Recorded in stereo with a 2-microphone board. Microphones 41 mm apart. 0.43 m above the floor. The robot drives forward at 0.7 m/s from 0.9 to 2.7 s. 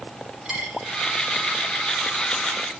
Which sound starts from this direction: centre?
A dropped coin, at 0.5 s.